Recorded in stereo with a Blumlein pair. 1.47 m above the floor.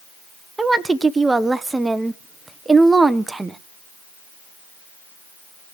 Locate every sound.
0.6 s a woman speaking: 10° right, 1.0 m